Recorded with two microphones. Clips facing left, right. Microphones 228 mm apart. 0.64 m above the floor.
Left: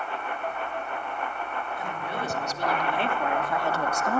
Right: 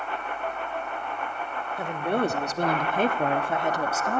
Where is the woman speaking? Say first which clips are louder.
Right 12 dB; 65° right (ahead or behind), 2 m; by 4.2 s 5° left (ahead or behind), 0.9 m.